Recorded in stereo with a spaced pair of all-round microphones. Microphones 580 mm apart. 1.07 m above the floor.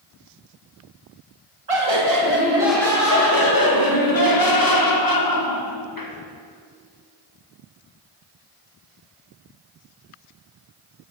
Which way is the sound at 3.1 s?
35° left (ahead or behind).